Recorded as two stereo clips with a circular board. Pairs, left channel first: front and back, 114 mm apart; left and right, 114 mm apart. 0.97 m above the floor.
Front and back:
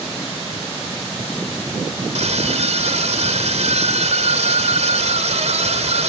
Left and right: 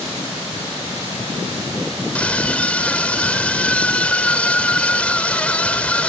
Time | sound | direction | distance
2.1 | a scream | 170° left | ?